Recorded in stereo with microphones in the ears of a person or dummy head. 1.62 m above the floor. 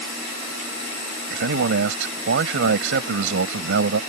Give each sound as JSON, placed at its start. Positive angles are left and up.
{"t": 1.3, "sound": "a man speaking", "side_deg": -75}